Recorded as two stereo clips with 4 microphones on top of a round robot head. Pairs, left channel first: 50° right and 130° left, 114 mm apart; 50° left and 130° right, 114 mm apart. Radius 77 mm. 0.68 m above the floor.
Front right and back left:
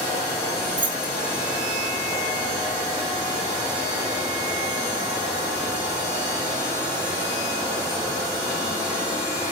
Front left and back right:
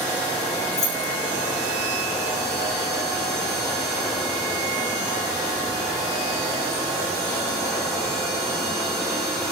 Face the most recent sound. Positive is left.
turn(degrees=85)